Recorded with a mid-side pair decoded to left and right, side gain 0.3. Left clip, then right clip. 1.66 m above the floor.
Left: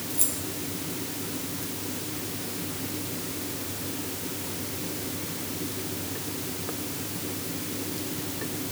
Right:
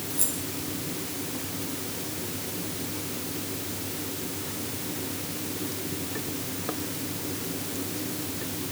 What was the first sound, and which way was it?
Keys jangling, 30° left.